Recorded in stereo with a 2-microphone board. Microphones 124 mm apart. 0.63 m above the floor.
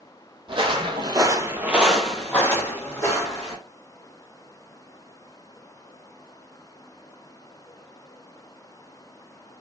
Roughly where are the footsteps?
Right.